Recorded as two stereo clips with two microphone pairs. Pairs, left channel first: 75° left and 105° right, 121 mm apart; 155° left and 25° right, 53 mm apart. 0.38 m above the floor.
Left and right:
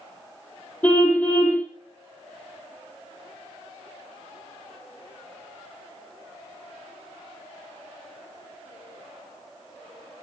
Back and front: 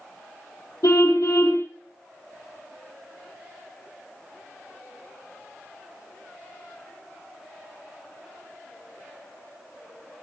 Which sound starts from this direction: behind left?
A car horn, at 0.8 s.